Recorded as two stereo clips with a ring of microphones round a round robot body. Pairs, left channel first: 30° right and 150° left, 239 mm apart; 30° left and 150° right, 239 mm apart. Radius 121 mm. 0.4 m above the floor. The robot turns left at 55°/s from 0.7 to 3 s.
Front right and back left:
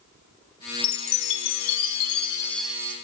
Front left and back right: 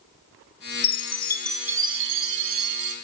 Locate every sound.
0.8 s a chime: 20° right, 0.6 m; by 3.0 s 140° right, 0.6 m